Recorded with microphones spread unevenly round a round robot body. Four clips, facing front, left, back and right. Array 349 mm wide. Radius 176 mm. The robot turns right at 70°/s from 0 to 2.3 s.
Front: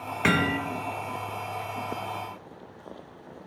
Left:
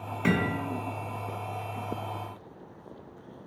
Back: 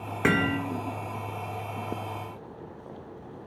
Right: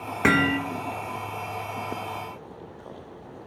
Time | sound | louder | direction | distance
0.2 | hammering | right 6 dB, even | 100° right | 1.3 m